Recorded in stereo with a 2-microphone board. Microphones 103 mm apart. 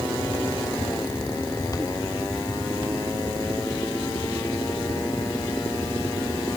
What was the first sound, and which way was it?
Only background noise.